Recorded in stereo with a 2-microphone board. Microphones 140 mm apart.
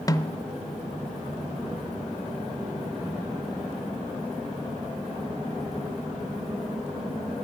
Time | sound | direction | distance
0.1 | a snare drum | 25° left (ahead or behind) | 0.6 m